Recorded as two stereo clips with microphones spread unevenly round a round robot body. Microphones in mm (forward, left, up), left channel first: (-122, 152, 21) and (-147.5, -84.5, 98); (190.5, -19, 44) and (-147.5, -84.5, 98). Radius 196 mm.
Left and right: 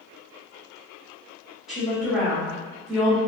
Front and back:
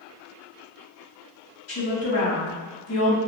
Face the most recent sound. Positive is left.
turn(degrees=10)